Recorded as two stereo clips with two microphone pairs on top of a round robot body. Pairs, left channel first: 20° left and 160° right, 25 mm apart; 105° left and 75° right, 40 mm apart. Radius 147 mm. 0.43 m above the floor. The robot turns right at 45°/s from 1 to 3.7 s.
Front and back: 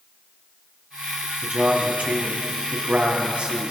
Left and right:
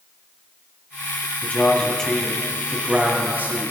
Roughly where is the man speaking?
Behind left.